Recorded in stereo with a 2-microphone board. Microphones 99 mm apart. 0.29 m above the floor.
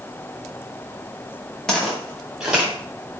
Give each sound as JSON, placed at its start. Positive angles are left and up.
{"t": 1.7, "sound": "footsteps", "side_deg": 5, "distance_m": 2.0}